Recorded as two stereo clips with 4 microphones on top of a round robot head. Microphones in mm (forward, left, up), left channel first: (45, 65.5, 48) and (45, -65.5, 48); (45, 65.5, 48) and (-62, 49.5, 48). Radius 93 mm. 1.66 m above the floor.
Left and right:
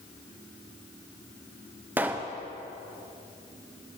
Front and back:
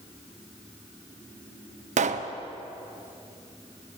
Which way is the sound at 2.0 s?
170° right.